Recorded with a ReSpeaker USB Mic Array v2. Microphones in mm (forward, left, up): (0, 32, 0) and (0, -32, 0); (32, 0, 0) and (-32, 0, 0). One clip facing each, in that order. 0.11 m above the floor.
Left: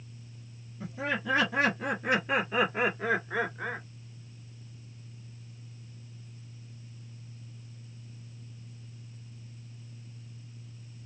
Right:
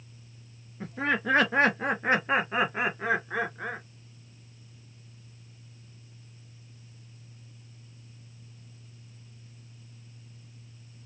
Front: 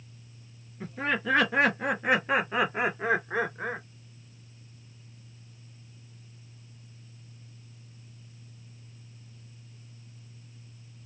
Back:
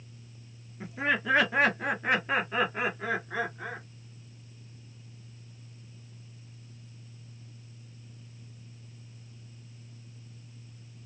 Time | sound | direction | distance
0.8 | laughter | 105° right | 1.6 m